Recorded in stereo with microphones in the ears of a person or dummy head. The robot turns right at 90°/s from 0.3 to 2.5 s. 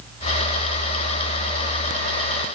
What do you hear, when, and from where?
Only background noise.